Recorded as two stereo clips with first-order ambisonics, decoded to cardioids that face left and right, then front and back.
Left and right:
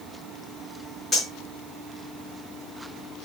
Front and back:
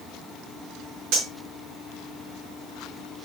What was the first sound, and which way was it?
Cutlery clinking, 175° left.